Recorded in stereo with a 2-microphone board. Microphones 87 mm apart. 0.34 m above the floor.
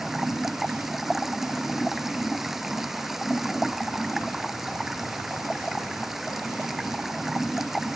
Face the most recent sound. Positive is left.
turn(degrees=-5)  # may be behind; listen again after turning